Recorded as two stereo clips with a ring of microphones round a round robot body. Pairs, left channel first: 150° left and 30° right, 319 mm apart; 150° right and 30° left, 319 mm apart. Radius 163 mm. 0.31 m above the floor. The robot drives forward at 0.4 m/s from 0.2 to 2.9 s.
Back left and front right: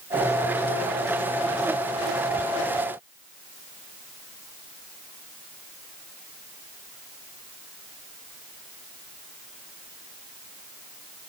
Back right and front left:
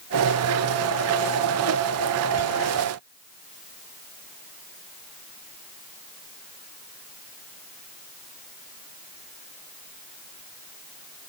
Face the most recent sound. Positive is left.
No sound to turn to.